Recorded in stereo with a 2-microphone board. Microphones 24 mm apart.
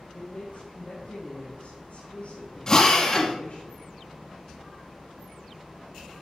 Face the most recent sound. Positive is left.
turn(degrees=30)  # may be behind; listen again after turning